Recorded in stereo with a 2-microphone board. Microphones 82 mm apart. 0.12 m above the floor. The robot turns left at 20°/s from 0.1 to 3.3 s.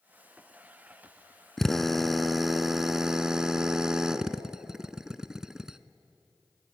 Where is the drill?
5° left (ahead or behind), 0.6 m; by 5.8 s 5° right (ahead or behind), 0.6 m.